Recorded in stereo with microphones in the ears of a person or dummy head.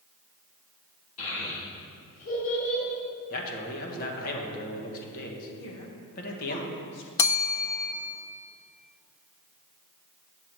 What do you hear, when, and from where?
1.2 s a child speaking: 80° left, 3 m
3.3 s a man speaking: 50° left (ahead or behind), 1.4 m
5.6 s a woman speaking: 65° left (ahead or behind), 1.3 m
7.2 s a bell: 15° left (ahead or behind), 0.6 m